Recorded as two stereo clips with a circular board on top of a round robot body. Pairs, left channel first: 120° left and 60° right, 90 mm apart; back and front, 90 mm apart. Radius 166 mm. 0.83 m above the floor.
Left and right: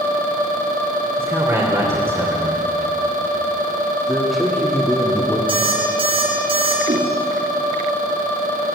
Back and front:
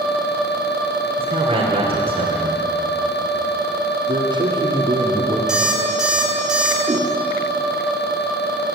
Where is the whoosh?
45° right, 3 m.